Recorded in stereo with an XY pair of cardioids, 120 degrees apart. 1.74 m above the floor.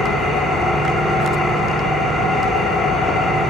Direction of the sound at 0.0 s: 40° left.